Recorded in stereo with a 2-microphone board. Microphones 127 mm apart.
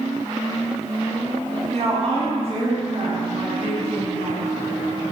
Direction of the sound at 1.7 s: 55° right (ahead or behind).